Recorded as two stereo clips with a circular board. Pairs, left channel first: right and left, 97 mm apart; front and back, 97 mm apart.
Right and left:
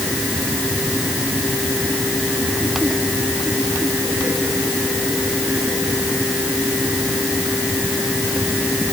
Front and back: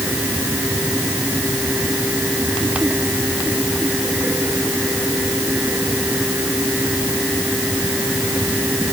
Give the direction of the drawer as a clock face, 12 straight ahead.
No drawer in this recording.